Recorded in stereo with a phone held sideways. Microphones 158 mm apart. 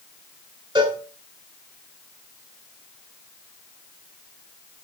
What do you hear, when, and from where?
0.8 s a cowbell: 25° right (ahead or behind), 2.0 m